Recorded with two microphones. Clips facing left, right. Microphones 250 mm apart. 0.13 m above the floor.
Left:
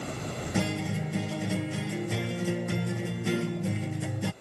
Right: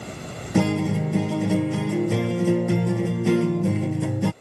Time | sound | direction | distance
0.6 | a guitar | 75° right (ahead or behind) | ?